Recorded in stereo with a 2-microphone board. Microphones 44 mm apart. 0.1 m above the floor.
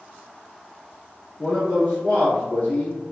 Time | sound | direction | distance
1.4 | a man speaking | 30° left (ahead or behind) | 1.4 m